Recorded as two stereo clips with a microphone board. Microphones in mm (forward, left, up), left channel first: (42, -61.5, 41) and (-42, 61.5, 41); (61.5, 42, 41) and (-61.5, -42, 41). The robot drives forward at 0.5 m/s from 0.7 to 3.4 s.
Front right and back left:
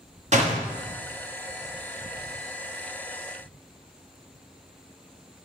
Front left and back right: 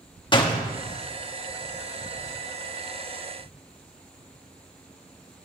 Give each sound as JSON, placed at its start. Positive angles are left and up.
{"t": 0.3, "sound": "a door slam", "azimuth_deg": 90, "distance_m": 1.2}